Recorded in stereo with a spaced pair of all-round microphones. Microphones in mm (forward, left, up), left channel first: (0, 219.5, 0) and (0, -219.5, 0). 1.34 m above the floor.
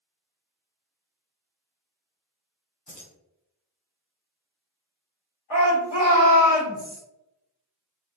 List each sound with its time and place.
2.9 s keys jangling: 50° left (ahead or behind), 0.8 m
5.5 s a shout: 5° right (ahead or behind), 1.8 m